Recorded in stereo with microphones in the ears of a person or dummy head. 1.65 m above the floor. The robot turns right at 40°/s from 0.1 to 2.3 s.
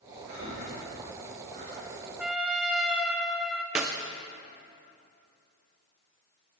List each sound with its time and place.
0.3 s breathing: 65° right (ahead or behind), 4.5 m; by 1.8 s 50° right (ahead or behind), 4.5 m
2.2 s a trumpet: 10° right (ahead or behind), 1.7 m; by 3.6 s 5° right (ahead or behind), 1.7 m
3.8 s a clap: 10° right (ahead or behind), 0.5 m